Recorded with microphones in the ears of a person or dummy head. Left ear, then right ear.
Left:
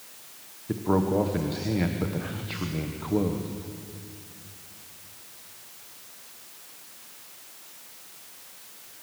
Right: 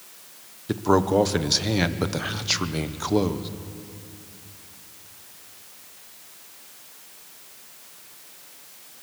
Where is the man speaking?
85° right, 1.3 m.